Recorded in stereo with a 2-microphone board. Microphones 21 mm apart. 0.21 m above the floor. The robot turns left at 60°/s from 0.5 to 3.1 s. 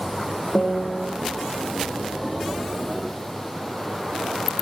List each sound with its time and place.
0.6 s a piano: 85° left, 1.0 m; by 1.1 s 50° left, 1.0 m